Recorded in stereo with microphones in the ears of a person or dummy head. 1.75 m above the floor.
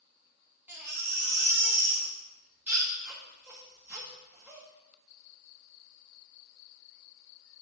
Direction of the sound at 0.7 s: 5° right (ahead or behind).